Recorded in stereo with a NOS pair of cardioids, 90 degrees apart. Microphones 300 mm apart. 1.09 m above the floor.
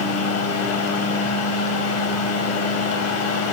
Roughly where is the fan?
Ahead left.